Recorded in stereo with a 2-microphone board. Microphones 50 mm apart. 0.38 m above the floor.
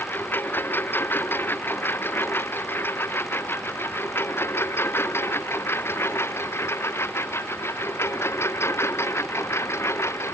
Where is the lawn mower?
45° left (ahead or behind); by 10.3 s 70° left (ahead or behind).